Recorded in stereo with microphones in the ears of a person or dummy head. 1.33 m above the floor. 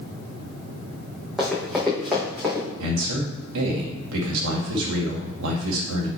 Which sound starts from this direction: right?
A man speaking, at 2.8 s.